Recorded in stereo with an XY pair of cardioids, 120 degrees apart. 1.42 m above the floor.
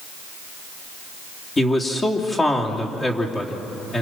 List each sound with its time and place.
1.6 s a man speaking: 25° left, 3 m